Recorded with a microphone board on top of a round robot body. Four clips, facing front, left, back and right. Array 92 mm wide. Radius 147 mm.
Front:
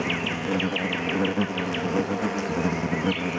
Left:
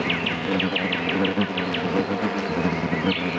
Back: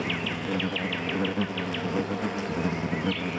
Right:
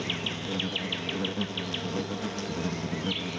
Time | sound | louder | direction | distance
0.0 | an insect | left 9 dB, front 3 dB | 75° left | ?